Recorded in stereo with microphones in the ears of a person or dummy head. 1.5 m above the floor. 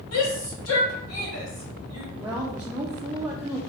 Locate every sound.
0.1 s a shout: 75° left (ahead or behind), 2.0 m
2.1 s a woman speaking: 10° right (ahead or behind), 0.7 m